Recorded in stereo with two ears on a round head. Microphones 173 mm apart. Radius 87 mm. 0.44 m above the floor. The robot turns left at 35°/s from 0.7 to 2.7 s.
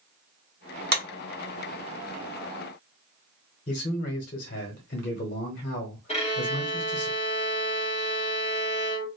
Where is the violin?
35° left (ahead or behind), 1.4 m.